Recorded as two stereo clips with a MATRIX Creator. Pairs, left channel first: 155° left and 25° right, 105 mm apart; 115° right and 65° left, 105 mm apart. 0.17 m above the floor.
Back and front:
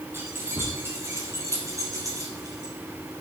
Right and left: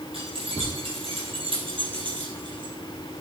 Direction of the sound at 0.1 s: 45° left.